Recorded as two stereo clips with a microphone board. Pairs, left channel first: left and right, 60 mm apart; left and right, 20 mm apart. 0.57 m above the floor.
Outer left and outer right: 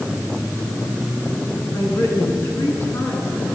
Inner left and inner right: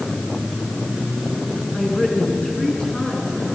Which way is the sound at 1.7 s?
55° left (ahead or behind).